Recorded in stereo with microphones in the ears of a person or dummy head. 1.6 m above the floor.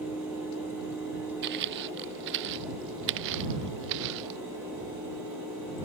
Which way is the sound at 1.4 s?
65° right (ahead or behind).